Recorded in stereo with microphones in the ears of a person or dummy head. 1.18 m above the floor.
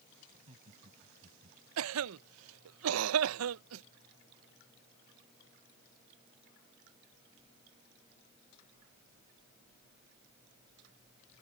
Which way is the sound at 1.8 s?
85° right.